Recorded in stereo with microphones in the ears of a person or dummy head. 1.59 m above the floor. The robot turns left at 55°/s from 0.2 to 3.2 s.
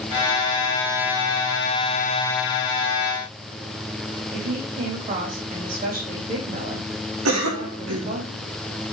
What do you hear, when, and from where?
4.3 s a woman speaking: 45° right (ahead or behind), 3 m
7.2 s a cough: 85° right, 3 m